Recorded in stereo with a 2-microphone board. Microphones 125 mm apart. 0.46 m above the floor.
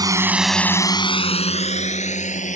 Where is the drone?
30° right (ahead or behind); by 2.5 s 75° left (ahead or behind).